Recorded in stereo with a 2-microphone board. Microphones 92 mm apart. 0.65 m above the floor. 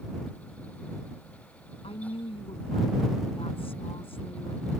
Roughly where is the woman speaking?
Left.